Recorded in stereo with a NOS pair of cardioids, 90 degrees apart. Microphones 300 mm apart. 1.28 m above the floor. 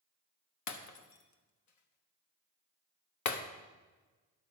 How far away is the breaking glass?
About 1.1 m.